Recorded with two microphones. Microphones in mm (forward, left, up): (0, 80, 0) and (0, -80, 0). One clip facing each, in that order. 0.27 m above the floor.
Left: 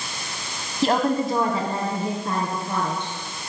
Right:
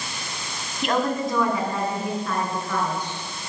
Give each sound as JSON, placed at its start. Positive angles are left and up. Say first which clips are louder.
{"t": 0.8, "sound": "a woman speaking", "louder": "left 3 dB", "side_deg": 35, "distance_m": 1.7}